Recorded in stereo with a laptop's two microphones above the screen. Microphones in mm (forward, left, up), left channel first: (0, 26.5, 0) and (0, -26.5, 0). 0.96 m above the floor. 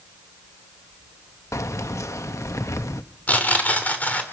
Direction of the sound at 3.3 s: 30° left (ahead or behind).